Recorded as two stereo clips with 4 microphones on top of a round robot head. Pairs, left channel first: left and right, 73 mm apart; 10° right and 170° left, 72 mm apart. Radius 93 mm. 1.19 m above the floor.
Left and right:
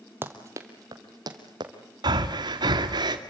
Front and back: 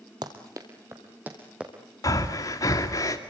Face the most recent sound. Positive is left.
turn(degrees=-60)